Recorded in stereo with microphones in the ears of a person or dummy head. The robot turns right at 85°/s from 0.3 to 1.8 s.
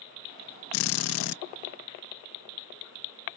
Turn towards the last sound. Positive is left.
turn(degrees=160)